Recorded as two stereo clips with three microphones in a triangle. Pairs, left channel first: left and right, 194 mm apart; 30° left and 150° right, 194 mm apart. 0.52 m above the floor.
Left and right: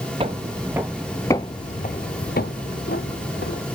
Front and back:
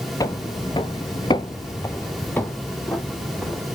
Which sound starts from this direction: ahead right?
Footsteps, at 0.2 s.